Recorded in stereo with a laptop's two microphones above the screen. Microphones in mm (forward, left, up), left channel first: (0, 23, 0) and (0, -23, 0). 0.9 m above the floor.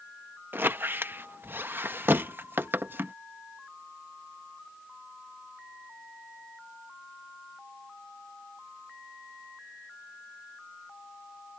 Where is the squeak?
50° right (ahead or behind).